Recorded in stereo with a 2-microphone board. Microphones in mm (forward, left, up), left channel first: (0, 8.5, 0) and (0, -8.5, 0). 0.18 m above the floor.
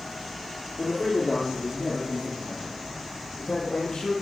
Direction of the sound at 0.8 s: 70° left (ahead or behind).